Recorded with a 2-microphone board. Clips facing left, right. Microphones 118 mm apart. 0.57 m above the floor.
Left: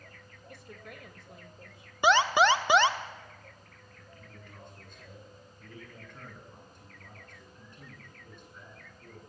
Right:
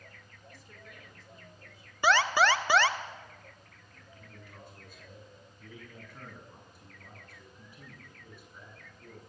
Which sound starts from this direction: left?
A woman speaking, at 0.5 s.